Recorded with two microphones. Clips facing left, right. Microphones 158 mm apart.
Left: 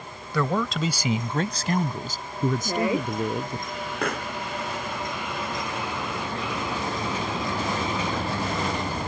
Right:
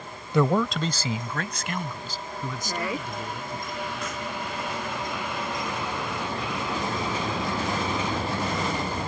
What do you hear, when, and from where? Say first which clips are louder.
0.3 s a man speaking: right 3 dB; 25° right (ahead or behind); by 3.6 s 60° left (ahead or behind)
2.6 s a woman speaking: left 6 dB; 25° left (ahead or behind)
4.0 s a pop: left 3 dB; 65° left (ahead or behind)